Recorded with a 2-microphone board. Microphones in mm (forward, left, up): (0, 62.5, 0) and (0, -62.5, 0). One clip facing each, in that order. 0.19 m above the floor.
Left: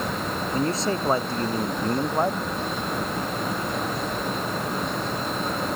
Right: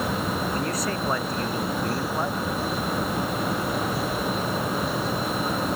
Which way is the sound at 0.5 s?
30° left (ahead or behind).